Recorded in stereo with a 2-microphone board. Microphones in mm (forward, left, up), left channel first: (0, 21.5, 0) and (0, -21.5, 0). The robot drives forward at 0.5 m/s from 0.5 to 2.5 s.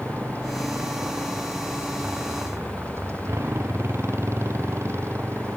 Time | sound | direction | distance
0.0 | a motorcycle | 70° right (ahead or behind) | ?